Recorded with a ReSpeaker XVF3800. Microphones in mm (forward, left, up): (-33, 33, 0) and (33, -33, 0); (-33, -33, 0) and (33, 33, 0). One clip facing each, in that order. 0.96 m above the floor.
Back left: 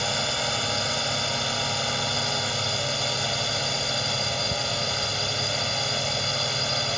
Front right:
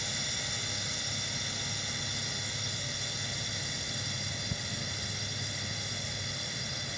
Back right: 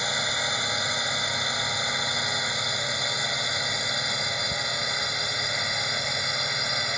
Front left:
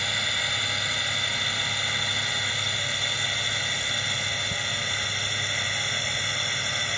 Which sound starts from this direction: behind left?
A drone, at 0.0 s.